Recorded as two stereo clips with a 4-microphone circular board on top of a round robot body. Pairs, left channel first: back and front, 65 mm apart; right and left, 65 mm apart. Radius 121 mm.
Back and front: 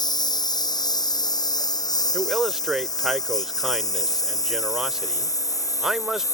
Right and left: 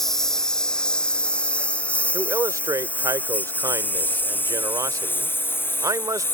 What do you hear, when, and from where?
0.0 s a lawn mower: 175° right; by 6.3 s 145° right
2.1 s a man speaking: 80° left